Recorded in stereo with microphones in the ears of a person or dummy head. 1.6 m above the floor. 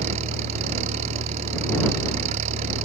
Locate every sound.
0.0 s an engine running: 45° right (ahead or behind)